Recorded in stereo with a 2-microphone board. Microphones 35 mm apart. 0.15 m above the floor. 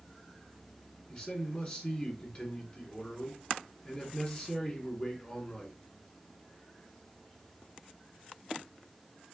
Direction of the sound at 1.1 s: 30° left (ahead or behind).